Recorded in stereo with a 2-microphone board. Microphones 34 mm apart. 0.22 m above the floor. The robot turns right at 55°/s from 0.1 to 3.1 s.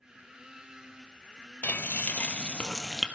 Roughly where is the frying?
Left.